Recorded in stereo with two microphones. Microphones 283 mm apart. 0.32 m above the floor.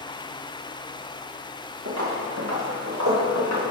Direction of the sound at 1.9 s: 60° right (ahead or behind).